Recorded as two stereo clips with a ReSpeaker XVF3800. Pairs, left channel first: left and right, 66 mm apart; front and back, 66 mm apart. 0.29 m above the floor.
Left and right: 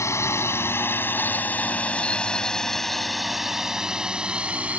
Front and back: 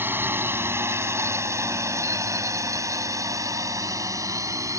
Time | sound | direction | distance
0.0 | a drone | 125° left | ?